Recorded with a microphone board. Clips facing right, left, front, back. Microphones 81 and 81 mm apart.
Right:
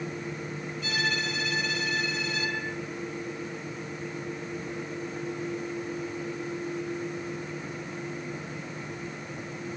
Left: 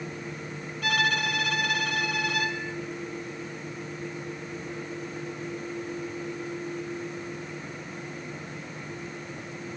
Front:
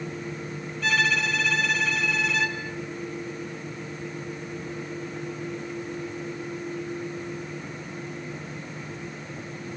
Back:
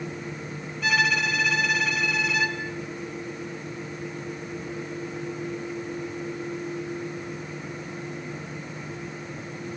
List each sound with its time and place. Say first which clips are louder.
0.8 s a violin: left 5 dB, back 1 dB; 95° left, 3 m